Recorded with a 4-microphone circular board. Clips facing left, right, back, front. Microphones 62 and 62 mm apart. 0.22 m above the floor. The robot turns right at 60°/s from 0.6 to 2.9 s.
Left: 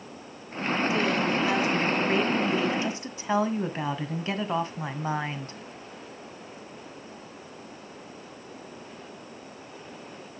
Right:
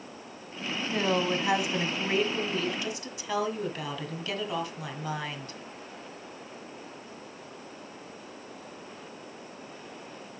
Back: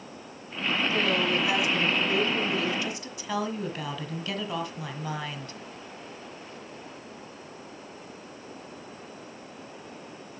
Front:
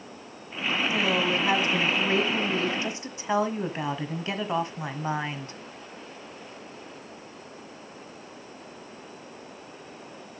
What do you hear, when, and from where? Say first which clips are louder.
0.9 s a woman speaking: right 2 dB, front 1 dB; 70° right, 1.6 m; by 5.6 s 50° left, 1.6 m